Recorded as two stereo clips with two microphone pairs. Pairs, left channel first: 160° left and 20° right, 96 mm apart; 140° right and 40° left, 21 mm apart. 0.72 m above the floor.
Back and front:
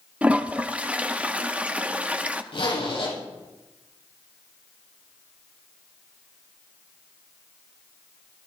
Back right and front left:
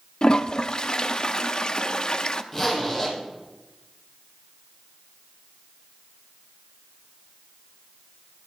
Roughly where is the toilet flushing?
Right.